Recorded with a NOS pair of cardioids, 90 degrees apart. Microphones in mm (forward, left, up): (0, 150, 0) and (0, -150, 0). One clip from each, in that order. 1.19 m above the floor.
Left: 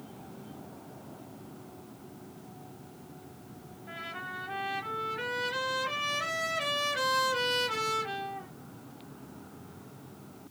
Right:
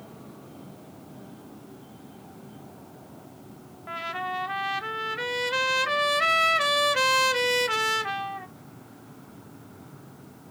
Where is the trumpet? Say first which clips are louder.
Right 8 dB; 45° right, 0.8 m.